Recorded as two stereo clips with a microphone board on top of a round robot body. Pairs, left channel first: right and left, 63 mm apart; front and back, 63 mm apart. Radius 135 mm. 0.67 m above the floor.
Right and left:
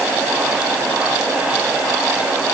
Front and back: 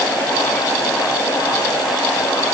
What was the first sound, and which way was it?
Only background noise.